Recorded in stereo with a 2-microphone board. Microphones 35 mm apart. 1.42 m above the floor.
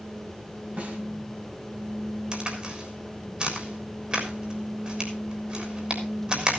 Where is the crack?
30° right (ahead or behind), 3.5 m.